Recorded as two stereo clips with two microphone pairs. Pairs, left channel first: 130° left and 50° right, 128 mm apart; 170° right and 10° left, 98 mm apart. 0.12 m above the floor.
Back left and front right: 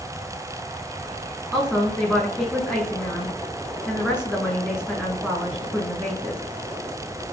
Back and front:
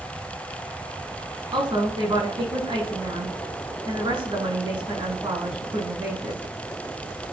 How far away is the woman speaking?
About 6 m.